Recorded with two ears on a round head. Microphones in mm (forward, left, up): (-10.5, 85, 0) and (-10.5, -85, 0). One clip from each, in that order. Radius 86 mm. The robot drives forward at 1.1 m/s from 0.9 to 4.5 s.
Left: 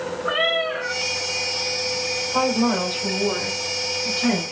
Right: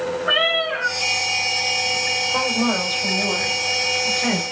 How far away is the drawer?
No drawer in this recording.